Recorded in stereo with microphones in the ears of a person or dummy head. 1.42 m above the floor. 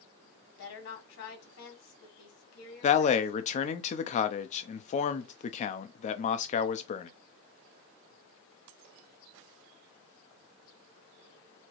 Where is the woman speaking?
85° left, 1.5 m.